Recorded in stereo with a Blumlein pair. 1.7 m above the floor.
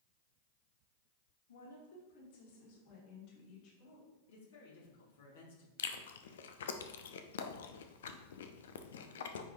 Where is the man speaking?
60° left, 2 m.